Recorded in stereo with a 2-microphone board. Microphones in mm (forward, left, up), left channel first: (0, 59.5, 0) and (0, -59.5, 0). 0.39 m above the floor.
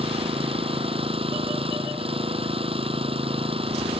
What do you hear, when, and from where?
0.0 s an engine running: 50° right (ahead or behind)